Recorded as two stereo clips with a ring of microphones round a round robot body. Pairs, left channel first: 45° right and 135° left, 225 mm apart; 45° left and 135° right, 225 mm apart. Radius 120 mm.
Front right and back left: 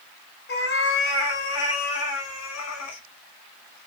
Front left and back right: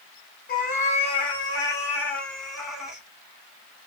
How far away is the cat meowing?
About 1.3 m.